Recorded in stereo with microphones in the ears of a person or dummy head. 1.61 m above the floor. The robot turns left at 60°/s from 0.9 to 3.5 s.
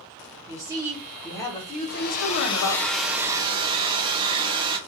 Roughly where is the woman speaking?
Behind.